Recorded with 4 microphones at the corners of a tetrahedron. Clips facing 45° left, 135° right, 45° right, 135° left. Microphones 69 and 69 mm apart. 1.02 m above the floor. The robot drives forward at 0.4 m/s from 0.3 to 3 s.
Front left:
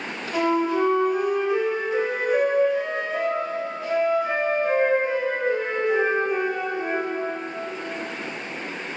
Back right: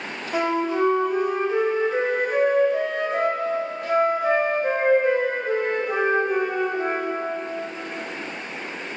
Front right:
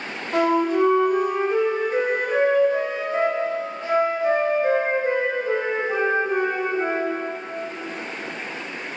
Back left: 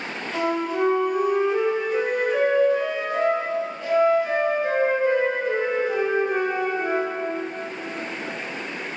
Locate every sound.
0.3 s a flute: 70° right, 2 m; by 7.2 s 100° right, 2 m